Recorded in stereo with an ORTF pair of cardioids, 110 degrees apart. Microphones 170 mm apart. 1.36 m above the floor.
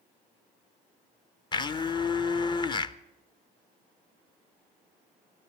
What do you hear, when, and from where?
1.5 s a blender: 30° left, 0.7 m